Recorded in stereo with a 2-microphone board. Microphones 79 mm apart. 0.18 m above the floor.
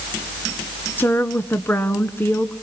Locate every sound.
1.0 s a woman speaking: 25° left (ahead or behind), 1.6 m